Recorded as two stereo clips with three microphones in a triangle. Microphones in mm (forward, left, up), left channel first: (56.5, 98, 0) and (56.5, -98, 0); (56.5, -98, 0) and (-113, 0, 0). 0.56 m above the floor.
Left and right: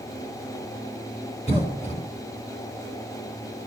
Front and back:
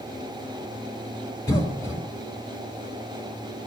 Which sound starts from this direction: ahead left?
A cough, at 1.5 s.